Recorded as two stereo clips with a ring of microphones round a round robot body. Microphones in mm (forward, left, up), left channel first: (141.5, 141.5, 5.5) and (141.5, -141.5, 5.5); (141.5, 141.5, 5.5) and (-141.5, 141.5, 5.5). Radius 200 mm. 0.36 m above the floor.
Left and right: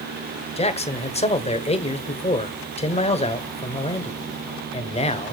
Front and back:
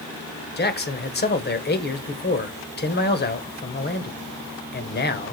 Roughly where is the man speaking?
Ahead left.